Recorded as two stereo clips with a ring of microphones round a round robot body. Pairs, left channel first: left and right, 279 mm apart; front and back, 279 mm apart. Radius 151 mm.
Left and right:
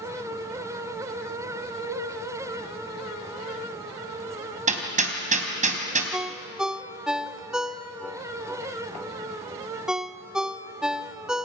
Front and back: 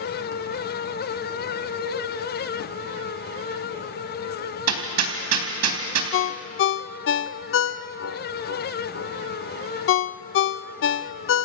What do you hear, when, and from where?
1.8 s a cowbell: 135° right, 4 m
4.7 s hammering: 155° right, 3.5 m
6.1 s a ringtone: 5° right, 0.5 m